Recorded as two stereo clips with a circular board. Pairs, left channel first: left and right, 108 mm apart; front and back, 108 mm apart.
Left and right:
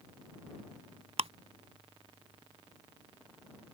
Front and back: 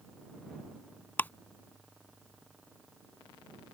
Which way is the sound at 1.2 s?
70° right.